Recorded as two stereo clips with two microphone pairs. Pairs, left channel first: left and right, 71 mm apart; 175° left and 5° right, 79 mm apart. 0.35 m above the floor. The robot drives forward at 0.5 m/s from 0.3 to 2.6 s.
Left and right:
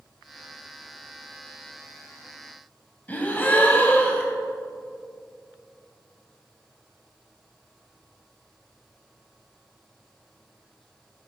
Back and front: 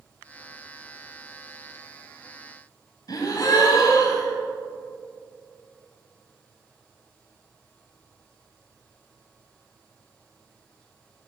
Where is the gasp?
150° left, 1.3 m.